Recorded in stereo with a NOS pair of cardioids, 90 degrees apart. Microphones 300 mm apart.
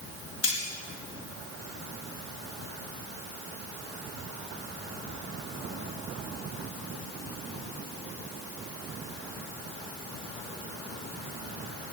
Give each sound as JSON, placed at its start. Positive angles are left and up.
{"t": 0.4, "sound": "cutlery clinking", "azimuth_deg": 50, "distance_m": 5.0}